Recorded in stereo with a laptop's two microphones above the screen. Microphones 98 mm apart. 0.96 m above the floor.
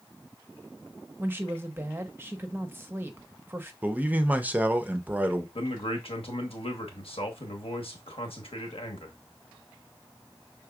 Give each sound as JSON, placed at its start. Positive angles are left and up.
{"t": 1.2, "sound": "a woman speaking", "side_deg": -20, "distance_m": 0.8}
{"t": 3.8, "sound": "a man speaking", "side_deg": -15, "distance_m": 0.6}
{"t": 5.5, "sound": "a man speaking", "side_deg": 80, "distance_m": 1.1}